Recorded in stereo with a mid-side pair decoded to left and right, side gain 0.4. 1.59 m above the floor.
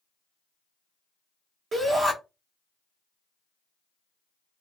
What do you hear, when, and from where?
1.7 s a shout: 55° right, 1.3 m